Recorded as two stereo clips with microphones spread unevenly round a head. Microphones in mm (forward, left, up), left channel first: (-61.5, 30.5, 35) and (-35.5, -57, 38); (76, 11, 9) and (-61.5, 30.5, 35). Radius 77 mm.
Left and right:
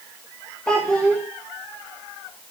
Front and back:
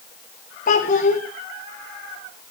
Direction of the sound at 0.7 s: 25° left.